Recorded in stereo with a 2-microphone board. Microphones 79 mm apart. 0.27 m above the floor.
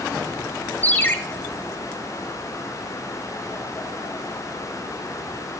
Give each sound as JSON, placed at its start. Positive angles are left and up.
{"t": 0.8, "sound": "a ringtone", "side_deg": 25, "distance_m": 0.5}